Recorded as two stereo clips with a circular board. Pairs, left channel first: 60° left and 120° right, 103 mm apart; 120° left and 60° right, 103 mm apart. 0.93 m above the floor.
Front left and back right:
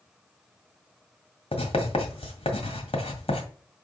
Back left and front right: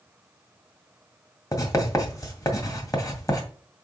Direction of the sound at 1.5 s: 65° left.